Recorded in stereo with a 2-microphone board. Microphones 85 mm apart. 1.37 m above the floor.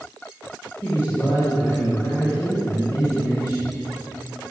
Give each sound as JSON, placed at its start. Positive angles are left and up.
{"t": 0.8, "sound": "a man speaking", "side_deg": 30, "distance_m": 6.5}